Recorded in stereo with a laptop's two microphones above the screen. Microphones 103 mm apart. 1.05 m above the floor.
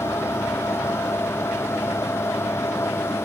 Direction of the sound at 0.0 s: 25° left (ahead or behind).